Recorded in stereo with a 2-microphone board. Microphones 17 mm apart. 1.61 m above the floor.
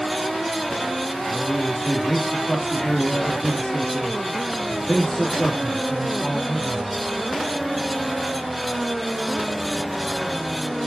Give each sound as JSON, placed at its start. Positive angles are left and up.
{"t": 1.3, "sound": "a man speaking", "side_deg": 45, "distance_m": 3.0}